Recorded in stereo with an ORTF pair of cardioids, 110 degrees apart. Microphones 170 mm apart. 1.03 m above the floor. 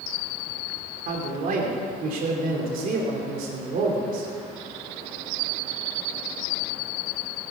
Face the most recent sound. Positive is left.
turn(degrees=-60)